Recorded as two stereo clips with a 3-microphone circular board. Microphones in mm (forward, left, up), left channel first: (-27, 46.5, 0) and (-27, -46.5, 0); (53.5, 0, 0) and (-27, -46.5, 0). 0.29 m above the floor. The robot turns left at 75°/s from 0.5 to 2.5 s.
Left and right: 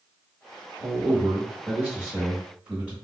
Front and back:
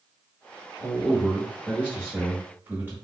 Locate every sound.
0.8 s a man speaking: 15° right, 1.5 m; by 2.9 s 145° right, 1.5 m